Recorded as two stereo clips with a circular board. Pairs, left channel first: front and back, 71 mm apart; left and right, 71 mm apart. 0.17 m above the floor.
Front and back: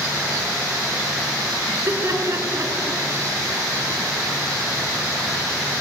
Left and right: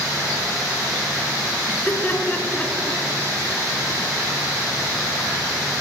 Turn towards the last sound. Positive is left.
turn(degrees=160)